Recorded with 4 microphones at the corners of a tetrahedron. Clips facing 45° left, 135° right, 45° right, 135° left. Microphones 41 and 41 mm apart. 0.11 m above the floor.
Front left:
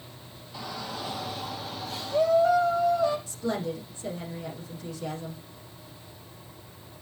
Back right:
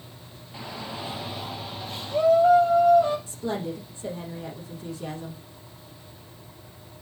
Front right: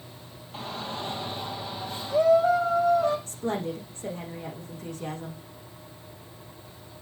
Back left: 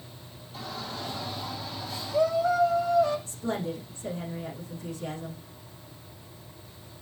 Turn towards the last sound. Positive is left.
turn(degrees=-75)